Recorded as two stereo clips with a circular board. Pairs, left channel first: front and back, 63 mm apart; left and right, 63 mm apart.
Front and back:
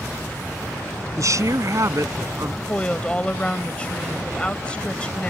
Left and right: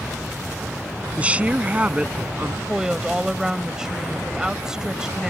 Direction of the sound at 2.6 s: 30° right.